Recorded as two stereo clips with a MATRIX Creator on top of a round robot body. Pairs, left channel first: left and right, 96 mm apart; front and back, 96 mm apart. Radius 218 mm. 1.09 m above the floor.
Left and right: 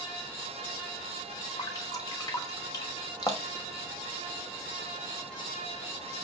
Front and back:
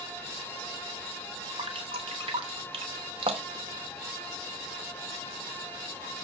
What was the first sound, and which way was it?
Dripping, 145° left.